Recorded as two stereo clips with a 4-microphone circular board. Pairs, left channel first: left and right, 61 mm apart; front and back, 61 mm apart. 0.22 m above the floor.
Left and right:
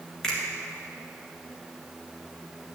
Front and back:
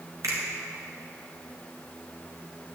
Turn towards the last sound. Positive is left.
turn(degrees=170)